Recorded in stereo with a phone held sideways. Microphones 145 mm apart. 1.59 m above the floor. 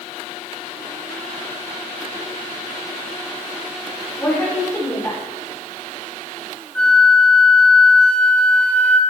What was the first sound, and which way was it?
A woman speaking, 15° left (ahead or behind).